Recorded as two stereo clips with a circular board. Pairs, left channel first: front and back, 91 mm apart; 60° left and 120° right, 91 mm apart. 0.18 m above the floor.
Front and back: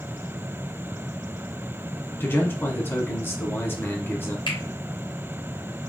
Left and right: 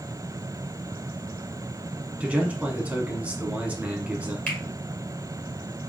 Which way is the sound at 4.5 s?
15° right.